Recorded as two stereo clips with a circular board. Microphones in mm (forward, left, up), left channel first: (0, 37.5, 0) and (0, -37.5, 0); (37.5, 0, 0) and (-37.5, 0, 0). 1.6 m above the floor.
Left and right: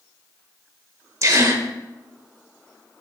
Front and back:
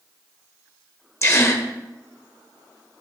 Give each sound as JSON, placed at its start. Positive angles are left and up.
{"t": 1.2, "sound": "a gasp", "azimuth_deg": -45, "distance_m": 1.1}